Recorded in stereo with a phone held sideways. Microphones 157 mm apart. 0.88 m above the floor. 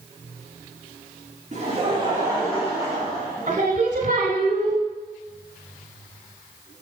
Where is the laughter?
50° right (ahead or behind), 1.5 m; by 3.7 s 5° left (ahead or behind), 2.5 m.